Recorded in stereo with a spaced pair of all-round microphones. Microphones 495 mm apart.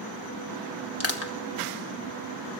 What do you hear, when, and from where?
1.0 s crushing: 30° left (ahead or behind), 1.3 m